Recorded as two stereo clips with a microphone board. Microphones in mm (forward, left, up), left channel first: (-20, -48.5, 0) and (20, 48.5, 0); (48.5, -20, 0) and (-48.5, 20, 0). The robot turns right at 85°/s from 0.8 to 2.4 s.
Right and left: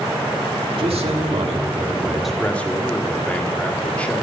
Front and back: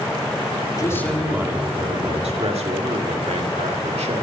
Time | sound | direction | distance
0.8 | a man speaking | 35° left | 1.9 m